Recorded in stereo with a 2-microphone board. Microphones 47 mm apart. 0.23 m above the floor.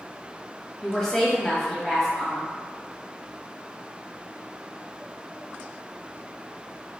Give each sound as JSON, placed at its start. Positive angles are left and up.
{"t": 0.8, "sound": "a woman speaking", "side_deg": 15, "distance_m": 1.0}